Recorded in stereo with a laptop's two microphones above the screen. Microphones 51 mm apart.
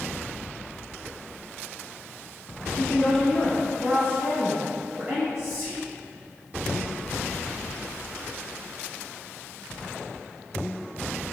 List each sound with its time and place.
2.8 s a woman speaking: 20° left (ahead or behind), 1.1 m; by 5.2 s 35° right (ahead or behind), 1.6 m
5.3 s whispering: 65° right (ahead or behind), 1.7 m